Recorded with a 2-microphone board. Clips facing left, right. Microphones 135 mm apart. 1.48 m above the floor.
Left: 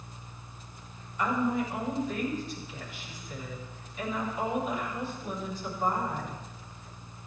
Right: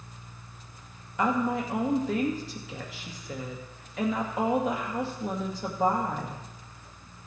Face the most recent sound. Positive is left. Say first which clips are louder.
# right 2 dB
turn(degrees=-85)